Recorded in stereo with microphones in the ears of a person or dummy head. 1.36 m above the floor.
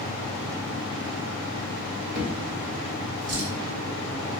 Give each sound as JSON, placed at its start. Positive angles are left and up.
{"t": 2.1, "sound": "a drawer", "side_deg": -55, "distance_m": 0.8}